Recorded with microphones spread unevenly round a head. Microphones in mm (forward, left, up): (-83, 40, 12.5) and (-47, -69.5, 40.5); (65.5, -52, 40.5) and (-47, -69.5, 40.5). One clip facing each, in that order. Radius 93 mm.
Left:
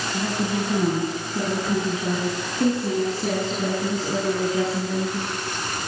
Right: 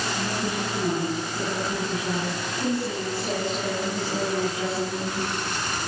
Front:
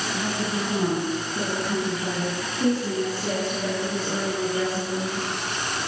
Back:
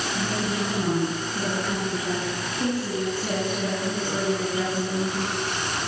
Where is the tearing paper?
No tearing paper in this recording.